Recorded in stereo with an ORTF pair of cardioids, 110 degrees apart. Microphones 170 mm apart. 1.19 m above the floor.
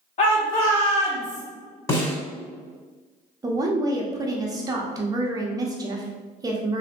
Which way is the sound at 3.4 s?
20° right.